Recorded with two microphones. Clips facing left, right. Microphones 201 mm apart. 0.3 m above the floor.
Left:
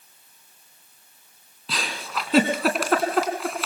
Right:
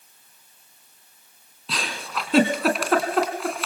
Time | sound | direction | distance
1.7 | a giggle | centre (ahead or behind) | 2.5 m